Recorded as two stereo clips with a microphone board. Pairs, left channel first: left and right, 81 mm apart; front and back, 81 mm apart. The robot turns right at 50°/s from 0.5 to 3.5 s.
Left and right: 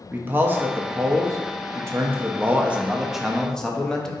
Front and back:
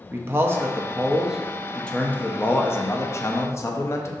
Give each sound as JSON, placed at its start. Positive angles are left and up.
{"t": 0.1, "sound": "a man speaking", "azimuth_deg": -140, "distance_m": 0.6}